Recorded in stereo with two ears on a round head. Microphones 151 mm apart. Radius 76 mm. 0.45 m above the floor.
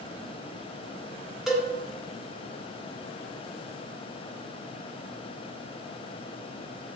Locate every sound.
1.5 s a cowbell: 5° right (ahead or behind), 0.5 m